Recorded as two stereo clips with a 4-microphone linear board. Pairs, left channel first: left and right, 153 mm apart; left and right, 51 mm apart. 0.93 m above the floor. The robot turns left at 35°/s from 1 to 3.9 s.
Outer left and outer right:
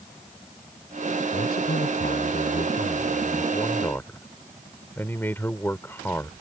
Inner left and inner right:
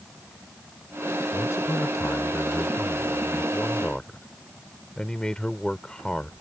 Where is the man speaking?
105° left; by 6.3 s 15° left.